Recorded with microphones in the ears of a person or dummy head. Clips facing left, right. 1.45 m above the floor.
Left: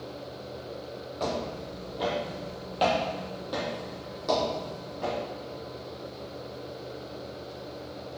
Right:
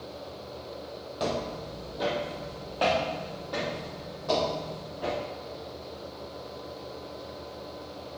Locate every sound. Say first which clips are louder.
1.2 s footsteps: right 1 dB; 10° right (ahead or behind), 1.7 m; by 5.2 s 55° left (ahead or behind), 2.5 m